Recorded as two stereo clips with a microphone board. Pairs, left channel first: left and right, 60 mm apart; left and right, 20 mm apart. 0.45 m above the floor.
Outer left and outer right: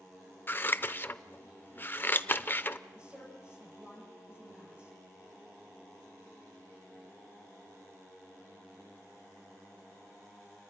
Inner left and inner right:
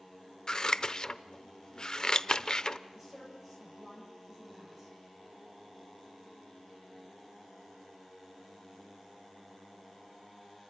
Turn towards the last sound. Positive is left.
turn(degrees=-15)  # may be behind; listen again after turning